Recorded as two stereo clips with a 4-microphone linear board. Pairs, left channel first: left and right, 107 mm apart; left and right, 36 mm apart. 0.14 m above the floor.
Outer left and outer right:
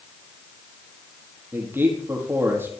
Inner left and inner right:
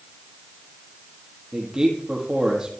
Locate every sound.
1.5 s a man speaking: 20° right (ahead or behind), 4 m